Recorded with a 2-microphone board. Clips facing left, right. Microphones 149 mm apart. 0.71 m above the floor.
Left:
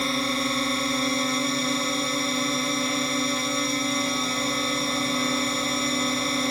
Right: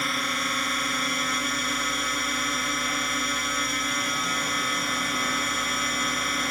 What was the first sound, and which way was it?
A drone, 30° left (ahead or behind).